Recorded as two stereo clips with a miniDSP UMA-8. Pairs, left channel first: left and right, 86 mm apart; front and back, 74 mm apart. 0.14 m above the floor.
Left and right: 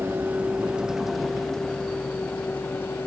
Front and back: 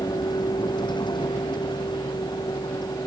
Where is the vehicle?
25° right; by 3.1 s 25° left.